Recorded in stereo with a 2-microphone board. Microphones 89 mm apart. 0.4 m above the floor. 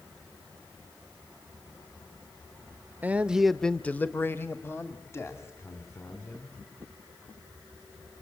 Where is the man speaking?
20° right (ahead or behind), 0.9 m; by 6.6 s 30° left (ahead or behind), 3.5 m.